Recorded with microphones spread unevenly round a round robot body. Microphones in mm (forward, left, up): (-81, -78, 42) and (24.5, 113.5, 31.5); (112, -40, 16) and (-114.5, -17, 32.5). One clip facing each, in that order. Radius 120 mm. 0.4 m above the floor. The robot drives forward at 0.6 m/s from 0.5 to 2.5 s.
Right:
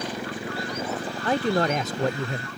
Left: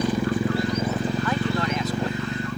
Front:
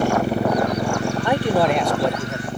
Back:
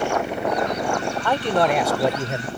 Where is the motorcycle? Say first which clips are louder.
Left 9 dB, front 4 dB; 50° left; by 2.6 s 70° left.